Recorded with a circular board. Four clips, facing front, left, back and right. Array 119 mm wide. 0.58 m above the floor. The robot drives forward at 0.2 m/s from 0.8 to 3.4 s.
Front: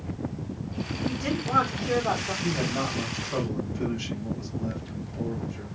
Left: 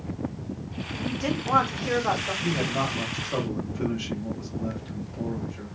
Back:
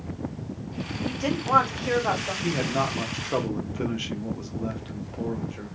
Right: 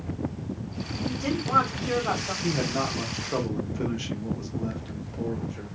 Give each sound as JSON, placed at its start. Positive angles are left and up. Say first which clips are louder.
{"t": 1.1, "sound": "a woman speaking", "louder": "left 2 dB, back 4 dB", "azimuth_deg": 145, "distance_m": 1.8}
{"t": 2.4, "sound": "a man speaking", "louder": "even, back 3 dB", "azimuth_deg": -160, "distance_m": 0.9}